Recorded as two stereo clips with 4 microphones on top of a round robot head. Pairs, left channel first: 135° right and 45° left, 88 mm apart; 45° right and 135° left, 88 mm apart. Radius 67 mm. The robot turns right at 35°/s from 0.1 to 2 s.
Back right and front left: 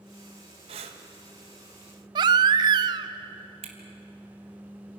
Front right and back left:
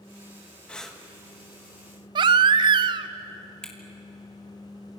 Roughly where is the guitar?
No guitar in this recording.